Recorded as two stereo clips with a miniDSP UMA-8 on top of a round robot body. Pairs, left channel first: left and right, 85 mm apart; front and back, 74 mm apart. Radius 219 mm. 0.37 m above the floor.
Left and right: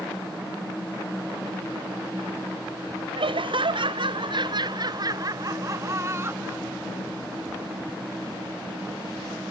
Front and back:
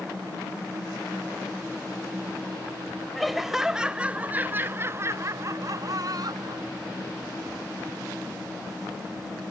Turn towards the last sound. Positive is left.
turn(degrees=-155)